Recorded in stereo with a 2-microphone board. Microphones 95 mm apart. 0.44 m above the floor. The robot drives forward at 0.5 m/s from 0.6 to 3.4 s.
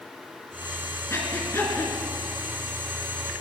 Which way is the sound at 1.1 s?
30° left (ahead or behind).